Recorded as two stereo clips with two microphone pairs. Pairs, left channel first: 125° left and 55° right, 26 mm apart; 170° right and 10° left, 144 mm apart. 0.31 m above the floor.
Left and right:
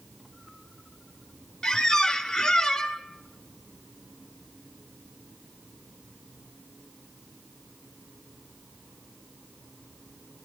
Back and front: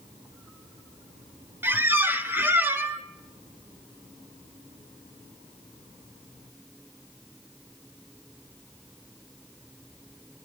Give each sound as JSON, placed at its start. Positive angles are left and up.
{"t": 1.6, "sound": "a squeak", "azimuth_deg": 80, "distance_m": 0.7}